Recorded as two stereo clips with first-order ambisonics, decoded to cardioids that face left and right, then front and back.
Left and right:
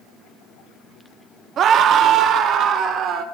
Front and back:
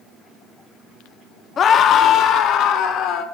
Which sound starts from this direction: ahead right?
A scream, at 1.6 s.